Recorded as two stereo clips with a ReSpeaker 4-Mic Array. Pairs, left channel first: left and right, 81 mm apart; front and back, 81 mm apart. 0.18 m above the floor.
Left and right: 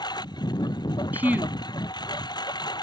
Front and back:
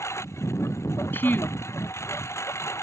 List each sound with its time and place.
0.0 s a lawn mower: 55° left
1.1 s a woman speaking: 40° right